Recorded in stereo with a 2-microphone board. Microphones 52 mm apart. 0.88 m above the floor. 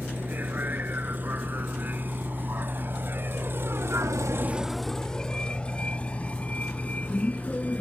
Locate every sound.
0.0 s a vehicle: 40° right (ahead or behind); by 7.8 s 30° left (ahead or behind)